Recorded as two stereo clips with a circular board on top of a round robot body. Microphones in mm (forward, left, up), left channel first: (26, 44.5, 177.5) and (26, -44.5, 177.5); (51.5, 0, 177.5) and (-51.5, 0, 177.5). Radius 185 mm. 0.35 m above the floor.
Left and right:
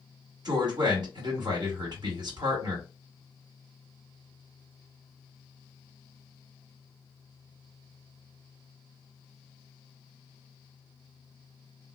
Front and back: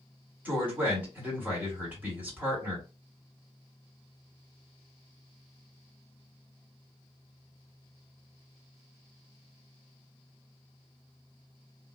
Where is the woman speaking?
110° right, 1.9 m.